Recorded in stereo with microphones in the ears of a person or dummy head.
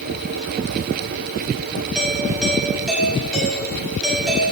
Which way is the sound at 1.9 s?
Centre (ahead or behind).